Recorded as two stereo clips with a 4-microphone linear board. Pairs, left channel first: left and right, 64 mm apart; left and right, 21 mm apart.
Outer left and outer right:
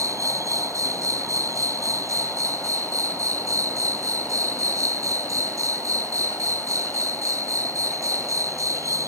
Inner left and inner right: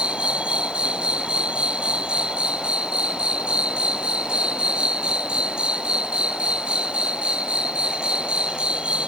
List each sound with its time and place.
0.0 s an insect: 55° right (ahead or behind)